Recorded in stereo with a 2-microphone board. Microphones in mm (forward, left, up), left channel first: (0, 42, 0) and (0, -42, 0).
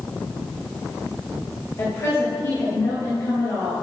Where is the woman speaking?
35° left (ahead or behind), 2.5 m.